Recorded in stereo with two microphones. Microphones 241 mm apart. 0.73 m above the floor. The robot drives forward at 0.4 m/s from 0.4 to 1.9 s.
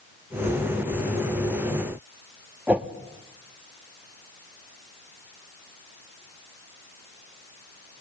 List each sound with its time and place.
2.7 s a whoosh: 5° right (ahead or behind), 1.2 m